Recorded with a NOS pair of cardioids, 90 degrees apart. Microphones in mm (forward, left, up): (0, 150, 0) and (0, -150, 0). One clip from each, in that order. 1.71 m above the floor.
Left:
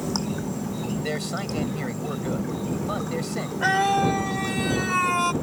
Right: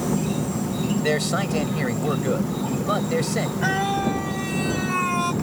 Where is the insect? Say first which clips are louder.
Right 3 dB; 40° right.